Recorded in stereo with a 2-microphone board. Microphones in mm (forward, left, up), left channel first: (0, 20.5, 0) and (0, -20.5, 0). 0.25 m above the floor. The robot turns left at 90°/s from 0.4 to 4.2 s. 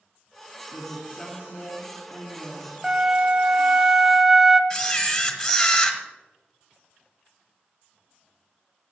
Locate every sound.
0.7 s a woman speaking: 175° left, 2 m; by 2.7 s 10° right, 2 m
2.8 s a flute: 20° right (ahead or behind), 0.6 m; by 4.6 s 10° right (ahead or behind), 0.6 m
4.7 s a camera shutter: 10° left (ahead or behind), 1.1 m